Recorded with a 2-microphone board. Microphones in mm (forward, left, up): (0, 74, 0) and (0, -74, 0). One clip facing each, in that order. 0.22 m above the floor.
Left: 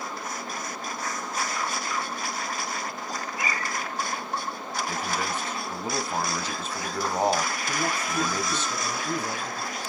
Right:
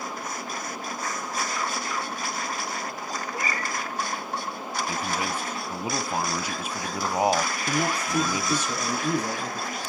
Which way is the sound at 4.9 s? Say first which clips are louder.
Even; 10° right (ahead or behind).